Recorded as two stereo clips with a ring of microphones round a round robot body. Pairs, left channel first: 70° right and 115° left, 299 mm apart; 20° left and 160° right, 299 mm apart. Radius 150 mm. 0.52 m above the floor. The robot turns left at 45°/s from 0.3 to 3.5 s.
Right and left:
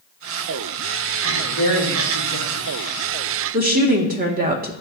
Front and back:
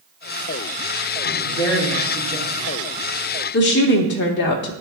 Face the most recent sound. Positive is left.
turn(degrees=60)